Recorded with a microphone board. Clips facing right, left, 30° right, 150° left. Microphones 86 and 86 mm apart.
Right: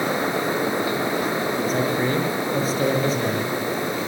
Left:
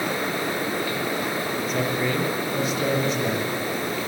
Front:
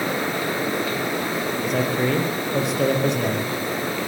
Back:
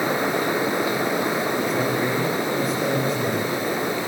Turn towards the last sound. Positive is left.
turn(degrees=-40)